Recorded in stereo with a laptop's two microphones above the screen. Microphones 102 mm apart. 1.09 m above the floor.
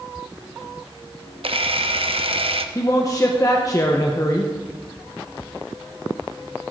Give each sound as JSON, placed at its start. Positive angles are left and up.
{"t": 1.4, "sound": "a camera shutter", "side_deg": -65, "distance_m": 0.8}
{"t": 2.8, "sound": "a man speaking", "side_deg": 35, "distance_m": 0.8}